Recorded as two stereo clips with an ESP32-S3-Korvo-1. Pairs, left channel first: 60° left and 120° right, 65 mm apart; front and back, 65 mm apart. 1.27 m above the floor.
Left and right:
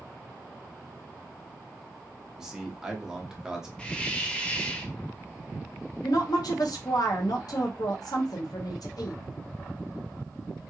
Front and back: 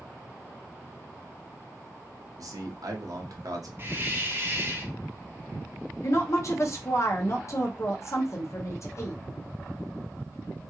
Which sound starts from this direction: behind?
A man speaking, at 2.4 s.